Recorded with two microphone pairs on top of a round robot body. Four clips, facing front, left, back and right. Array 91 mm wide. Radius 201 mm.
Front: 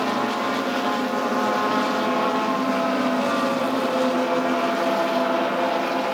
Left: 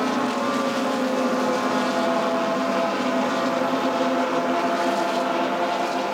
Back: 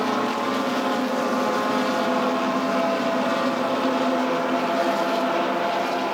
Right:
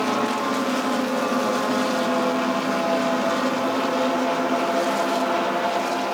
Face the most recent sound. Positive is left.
No sound to turn to.